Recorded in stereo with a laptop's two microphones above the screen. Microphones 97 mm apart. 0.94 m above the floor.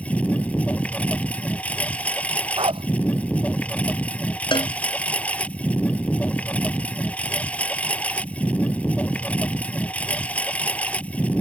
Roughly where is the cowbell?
Left.